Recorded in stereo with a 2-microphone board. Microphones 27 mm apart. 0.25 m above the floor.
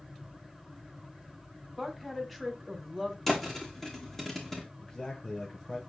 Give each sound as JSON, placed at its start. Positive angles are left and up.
{"t": 1.8, "sound": "a woman speaking", "side_deg": 5, "distance_m": 1.9}
{"t": 3.3, "sound": "a thud", "side_deg": 15, "distance_m": 2.5}
{"t": 4.8, "sound": "a man speaking", "side_deg": 20, "distance_m": 1.5}